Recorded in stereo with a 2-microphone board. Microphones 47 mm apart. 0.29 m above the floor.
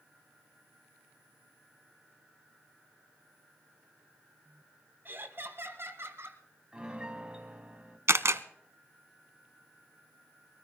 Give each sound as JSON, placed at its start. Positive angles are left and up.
{"t": 5.0, "sound": "laughter", "side_deg": -50, "distance_m": 2.0}
{"t": 6.7, "sound": "a piano", "side_deg": -20, "distance_m": 1.6}
{"t": 8.1, "sound": "a camera shutter", "side_deg": -75, "distance_m": 0.6}